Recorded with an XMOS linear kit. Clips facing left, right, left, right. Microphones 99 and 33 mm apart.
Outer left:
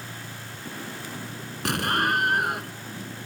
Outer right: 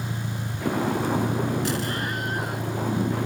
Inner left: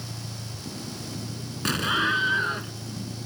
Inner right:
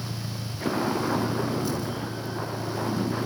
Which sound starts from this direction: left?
An explosion, at 1.6 s.